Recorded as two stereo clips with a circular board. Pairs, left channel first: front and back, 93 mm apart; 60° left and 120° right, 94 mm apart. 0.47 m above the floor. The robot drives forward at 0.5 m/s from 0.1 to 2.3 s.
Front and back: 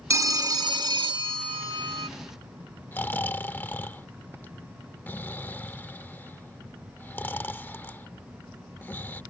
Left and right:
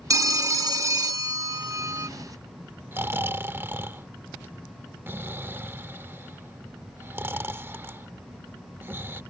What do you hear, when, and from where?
0.1 s a phone ringing: 145° right; by 2.1 s 170° right
2.9 s snoring: 60° right